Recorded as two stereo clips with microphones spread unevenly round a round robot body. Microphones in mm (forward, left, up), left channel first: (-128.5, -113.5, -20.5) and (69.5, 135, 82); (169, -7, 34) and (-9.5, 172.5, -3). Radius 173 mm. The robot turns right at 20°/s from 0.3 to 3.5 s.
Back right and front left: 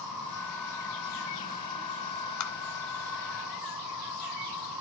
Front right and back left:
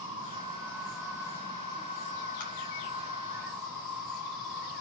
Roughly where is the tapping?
Behind right.